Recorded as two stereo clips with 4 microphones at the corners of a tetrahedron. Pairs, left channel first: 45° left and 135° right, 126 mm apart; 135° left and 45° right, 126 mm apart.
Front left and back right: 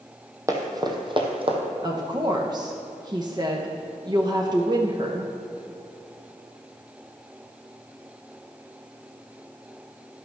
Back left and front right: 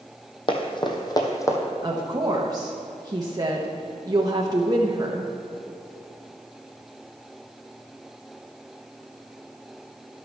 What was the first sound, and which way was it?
Running footsteps, 165° left.